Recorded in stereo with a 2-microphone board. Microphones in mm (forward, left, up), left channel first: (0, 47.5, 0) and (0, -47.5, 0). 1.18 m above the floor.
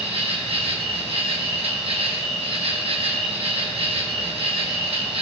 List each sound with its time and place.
0.0 s an insect: 75° right (ahead or behind), 1.2 m